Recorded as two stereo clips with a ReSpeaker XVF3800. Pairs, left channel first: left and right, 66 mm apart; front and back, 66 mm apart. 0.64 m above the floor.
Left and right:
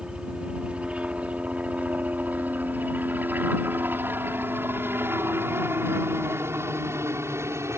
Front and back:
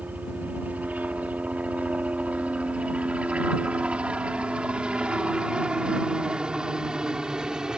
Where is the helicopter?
150° right; by 7.8 s 105° right.